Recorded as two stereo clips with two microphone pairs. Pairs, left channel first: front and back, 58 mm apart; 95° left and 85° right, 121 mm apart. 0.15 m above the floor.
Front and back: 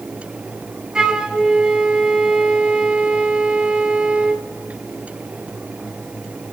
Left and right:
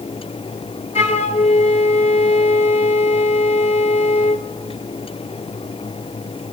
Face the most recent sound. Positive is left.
turn(degrees=110)